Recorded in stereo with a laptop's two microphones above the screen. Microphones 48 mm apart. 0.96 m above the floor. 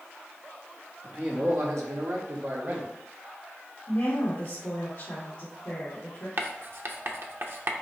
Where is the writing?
50° right (ahead or behind), 0.5 m.